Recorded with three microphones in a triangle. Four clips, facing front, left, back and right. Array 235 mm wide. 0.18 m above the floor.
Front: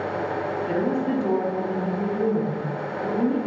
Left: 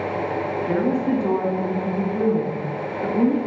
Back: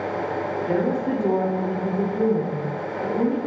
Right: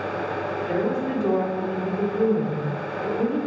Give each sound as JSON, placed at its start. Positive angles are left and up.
{"t": 0.7, "sound": "a woman speaking", "azimuth_deg": 95, "distance_m": 2.0}